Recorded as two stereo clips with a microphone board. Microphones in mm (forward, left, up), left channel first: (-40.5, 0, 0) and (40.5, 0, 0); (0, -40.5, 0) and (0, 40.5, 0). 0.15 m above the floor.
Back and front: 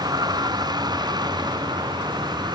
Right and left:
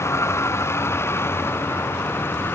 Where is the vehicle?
35° right; by 2.6 s 30° right.